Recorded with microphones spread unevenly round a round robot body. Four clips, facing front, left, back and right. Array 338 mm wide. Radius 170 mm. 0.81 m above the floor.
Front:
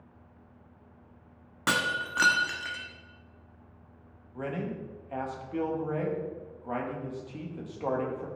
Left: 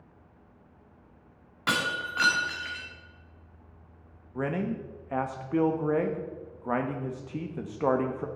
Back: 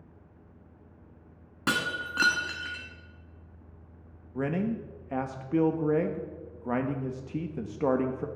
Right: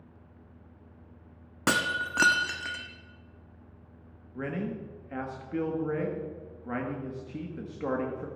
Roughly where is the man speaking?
Behind.